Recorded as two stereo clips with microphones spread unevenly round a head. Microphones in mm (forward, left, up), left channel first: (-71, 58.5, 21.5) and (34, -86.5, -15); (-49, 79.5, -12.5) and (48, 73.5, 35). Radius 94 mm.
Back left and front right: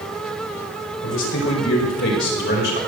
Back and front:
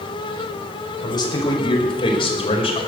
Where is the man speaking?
135° left, 5.5 m; by 2.8 s 155° left, 5.5 m.